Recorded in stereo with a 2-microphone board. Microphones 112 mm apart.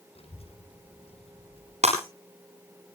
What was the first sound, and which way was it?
A child speaking, 65° left (ahead or behind).